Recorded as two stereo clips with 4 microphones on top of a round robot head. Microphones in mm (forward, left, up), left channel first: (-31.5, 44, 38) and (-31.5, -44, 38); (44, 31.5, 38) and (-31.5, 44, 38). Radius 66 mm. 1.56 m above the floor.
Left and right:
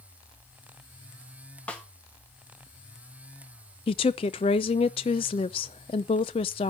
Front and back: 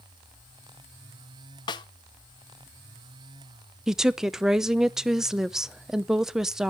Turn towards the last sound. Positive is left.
turn(degrees=90)